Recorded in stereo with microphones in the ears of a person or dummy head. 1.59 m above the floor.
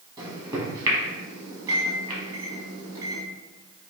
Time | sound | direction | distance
0.2 | a microwave | 15° right (ahead or behind) | 1.4 m